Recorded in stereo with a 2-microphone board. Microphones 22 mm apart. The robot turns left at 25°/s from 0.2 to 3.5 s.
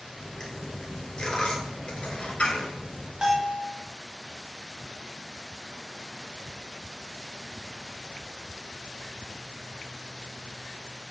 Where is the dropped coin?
25° left (ahead or behind), 1.5 m; by 3.1 s 75° left (ahead or behind), 1.5 m.